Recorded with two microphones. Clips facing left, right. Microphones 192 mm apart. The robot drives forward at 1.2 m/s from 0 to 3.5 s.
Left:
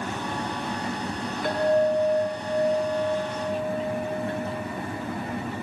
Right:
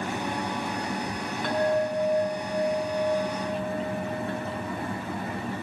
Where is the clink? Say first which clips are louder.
Left 4 dB; 5° left (ahead or behind), 5.5 m.